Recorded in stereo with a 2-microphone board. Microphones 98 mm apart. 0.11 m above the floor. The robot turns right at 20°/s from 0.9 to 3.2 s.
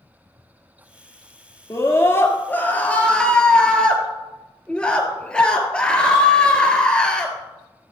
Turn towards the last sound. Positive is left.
turn(degrees=165)